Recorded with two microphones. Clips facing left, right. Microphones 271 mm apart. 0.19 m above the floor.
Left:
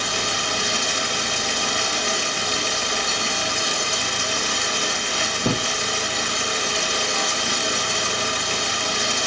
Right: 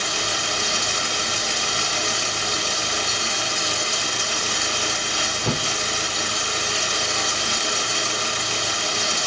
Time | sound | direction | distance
0.0 | running water | 65° left (ahead or behind) | 3.5 m